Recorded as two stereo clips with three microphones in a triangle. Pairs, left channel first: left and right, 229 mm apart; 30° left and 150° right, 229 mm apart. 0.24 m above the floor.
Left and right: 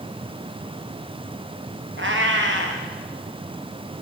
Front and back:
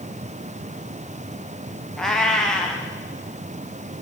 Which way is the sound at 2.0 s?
60° right.